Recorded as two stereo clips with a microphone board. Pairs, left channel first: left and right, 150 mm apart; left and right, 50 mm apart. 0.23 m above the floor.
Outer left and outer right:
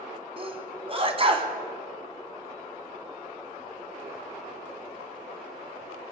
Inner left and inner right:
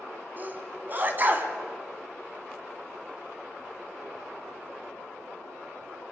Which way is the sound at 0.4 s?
35° right (ahead or behind).